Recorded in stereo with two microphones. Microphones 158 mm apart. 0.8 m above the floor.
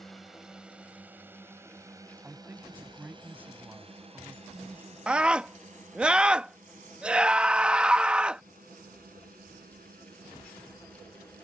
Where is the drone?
Centre (ahead or behind); by 11.4 s 65° right (ahead or behind).